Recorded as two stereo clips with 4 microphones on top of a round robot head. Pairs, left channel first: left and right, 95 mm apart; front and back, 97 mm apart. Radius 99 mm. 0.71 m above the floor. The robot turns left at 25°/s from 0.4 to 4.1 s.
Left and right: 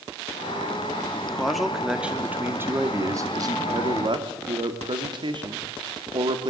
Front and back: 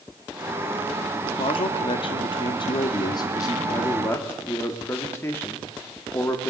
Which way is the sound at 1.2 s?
10° left.